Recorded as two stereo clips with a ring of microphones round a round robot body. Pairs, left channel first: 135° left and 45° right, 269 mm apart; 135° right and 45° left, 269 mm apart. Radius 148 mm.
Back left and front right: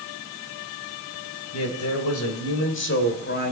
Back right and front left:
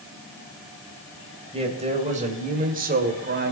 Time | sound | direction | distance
1.5 | a man speaking | 115° left | 2.5 m